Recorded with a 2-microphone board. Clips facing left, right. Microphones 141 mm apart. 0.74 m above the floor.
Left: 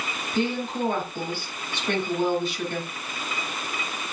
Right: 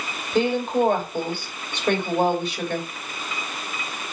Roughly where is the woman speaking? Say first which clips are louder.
Right 6 dB; right.